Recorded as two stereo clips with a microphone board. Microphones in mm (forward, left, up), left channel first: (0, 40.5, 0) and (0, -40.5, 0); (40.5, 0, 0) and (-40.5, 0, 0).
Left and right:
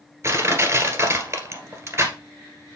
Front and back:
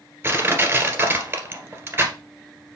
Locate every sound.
0.2 s crushing: 130° right, 1.7 m